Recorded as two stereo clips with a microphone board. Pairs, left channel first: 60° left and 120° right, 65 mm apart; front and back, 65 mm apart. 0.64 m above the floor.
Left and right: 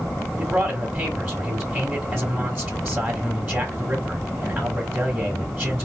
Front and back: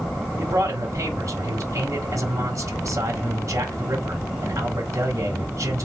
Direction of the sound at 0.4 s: 170° right.